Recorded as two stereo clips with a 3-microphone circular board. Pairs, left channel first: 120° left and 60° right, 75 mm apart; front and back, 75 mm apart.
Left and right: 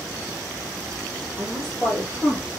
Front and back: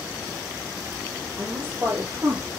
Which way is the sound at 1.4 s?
130° right.